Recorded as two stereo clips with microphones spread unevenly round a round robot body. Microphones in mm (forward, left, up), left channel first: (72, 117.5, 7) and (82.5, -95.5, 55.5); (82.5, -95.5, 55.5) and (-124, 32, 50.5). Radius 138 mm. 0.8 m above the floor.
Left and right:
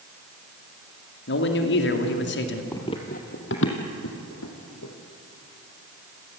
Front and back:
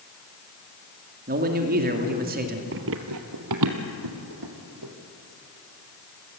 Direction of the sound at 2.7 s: 175° right.